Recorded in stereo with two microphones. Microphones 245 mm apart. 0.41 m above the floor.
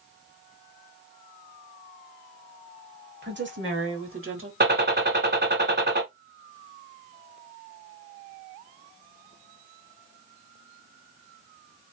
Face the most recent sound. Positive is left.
turn(degrees=-45)  # may be behind; listen again after turning